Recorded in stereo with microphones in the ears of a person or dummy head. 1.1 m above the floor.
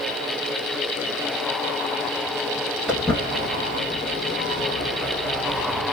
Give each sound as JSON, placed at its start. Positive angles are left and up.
{"t": 2.9, "sound": "footsteps", "side_deg": 0, "distance_m": 1.1}